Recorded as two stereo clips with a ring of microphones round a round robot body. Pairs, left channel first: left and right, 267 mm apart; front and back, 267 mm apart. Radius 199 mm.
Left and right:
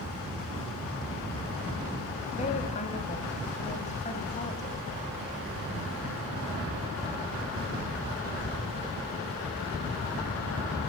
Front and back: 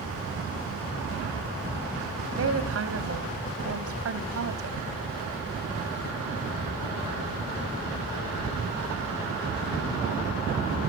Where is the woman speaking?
155° left, 2 m.